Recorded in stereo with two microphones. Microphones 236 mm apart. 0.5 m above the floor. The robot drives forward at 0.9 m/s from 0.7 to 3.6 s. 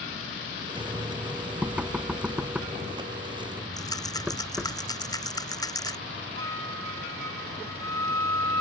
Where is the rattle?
15° left (ahead or behind).